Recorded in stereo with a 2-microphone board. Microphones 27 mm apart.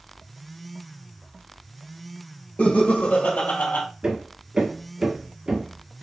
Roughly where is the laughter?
Left.